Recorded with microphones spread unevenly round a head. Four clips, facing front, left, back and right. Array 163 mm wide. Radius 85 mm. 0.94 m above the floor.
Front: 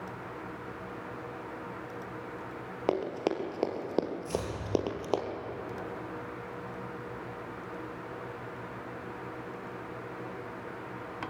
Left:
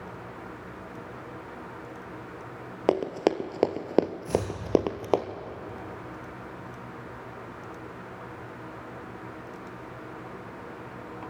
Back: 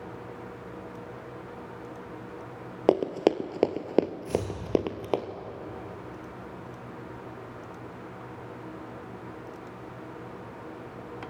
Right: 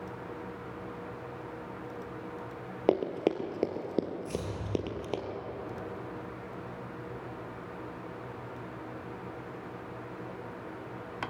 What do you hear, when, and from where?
2.9 s running footsteps: straight behind, 1.3 m; by 5.2 s 100° left, 1.6 m
4.2 s chopping: 85° left, 7.5 m